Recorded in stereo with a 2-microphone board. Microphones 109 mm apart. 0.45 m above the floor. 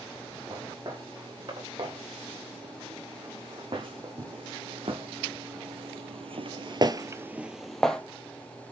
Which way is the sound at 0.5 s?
50° right (ahead or behind).